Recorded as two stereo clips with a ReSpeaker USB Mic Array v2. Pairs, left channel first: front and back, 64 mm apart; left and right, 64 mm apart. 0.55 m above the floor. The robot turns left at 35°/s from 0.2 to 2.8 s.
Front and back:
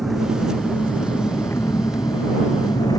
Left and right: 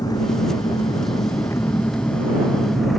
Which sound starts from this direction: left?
An engine running, at 0.0 s.